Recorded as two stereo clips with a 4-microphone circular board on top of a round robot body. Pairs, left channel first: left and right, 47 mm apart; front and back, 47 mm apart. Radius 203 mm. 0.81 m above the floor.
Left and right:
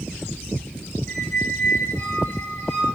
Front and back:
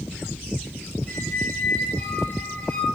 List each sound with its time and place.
1.1 s a squeak: 50° left, 1.4 m